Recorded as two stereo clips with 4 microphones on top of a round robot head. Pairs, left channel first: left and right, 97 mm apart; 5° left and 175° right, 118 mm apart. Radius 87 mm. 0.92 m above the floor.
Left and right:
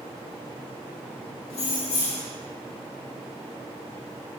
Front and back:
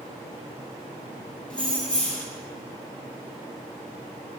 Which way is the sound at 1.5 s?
85° left.